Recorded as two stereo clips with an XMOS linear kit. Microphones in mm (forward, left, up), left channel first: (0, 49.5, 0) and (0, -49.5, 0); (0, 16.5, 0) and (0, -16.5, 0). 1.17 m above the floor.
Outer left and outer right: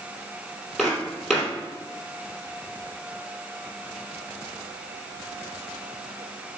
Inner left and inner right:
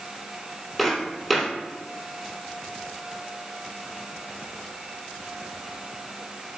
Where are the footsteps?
5° right (ahead or behind), 2.0 m.